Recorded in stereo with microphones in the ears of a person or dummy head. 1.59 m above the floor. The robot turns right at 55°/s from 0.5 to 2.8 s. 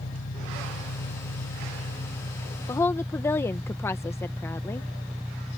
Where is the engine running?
55° left; by 5.6 s straight behind.